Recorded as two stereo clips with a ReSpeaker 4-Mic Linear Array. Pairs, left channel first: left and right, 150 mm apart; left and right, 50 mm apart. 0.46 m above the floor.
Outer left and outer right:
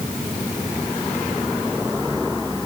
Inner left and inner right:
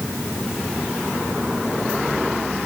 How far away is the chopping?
No chopping in this recording.